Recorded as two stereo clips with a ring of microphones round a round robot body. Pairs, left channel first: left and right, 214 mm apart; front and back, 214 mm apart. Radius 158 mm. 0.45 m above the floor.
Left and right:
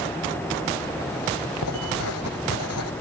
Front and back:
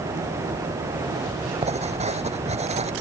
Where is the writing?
120° left.